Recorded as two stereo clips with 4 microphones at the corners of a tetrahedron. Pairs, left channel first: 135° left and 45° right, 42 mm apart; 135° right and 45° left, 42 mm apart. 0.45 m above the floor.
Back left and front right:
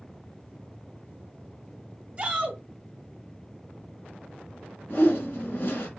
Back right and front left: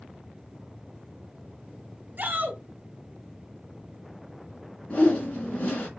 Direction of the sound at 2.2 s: 10° left.